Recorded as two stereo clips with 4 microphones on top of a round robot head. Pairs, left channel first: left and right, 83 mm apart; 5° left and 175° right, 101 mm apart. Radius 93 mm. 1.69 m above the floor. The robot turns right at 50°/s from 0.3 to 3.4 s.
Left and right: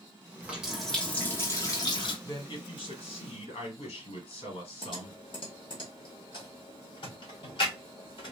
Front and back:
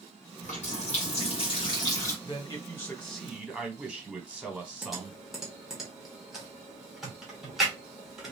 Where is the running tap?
20° right, 1.3 m; by 2.1 s 70° left, 1.3 m.